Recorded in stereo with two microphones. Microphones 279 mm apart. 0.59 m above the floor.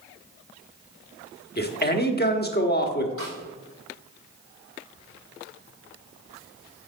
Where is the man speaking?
35° left (ahead or behind), 1.1 m.